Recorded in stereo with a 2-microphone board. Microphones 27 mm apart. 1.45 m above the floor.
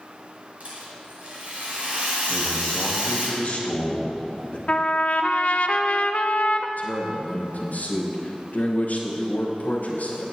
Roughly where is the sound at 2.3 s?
Left.